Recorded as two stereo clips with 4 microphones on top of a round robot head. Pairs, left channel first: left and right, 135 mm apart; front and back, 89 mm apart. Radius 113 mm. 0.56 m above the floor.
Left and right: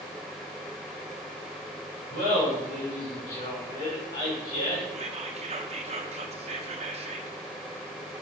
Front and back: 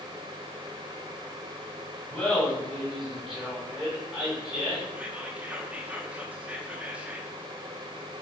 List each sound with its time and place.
2.1 s laughter: 85° left, 4 m; by 4.8 s 105° left, 4.5 m
4.9 s whispering: 105° right, 0.9 m